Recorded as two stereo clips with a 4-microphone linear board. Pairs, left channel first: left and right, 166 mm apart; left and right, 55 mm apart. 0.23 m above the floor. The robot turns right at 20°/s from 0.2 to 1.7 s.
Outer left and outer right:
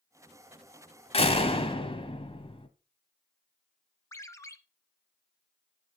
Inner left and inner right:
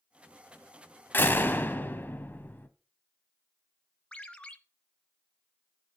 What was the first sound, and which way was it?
A door slam, 40° left (ahead or behind).